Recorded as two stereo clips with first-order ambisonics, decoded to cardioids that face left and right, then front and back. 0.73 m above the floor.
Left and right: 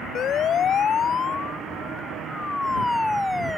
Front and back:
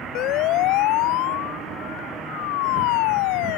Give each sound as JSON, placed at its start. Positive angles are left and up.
{"t": 0.1, "sound": "a siren", "azimuth_deg": 35}